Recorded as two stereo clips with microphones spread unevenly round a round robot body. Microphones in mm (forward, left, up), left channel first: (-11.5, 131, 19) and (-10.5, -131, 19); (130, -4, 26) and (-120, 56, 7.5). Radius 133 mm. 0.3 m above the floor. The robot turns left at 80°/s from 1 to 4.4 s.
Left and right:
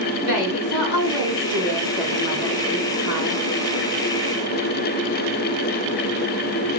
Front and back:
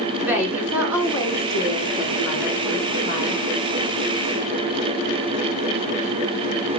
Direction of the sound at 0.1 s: 85° left.